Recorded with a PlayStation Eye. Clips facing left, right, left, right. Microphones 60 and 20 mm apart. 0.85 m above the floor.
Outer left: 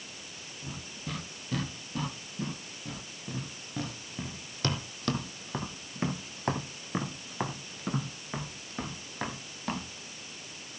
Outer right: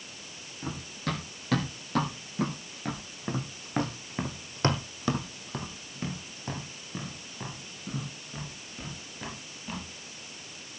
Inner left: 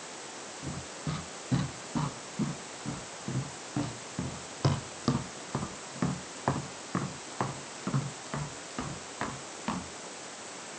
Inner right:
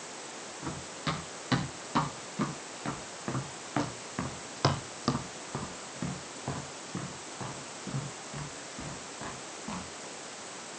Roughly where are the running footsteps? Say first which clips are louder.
Outer right 8 dB, inner right 4 dB; right.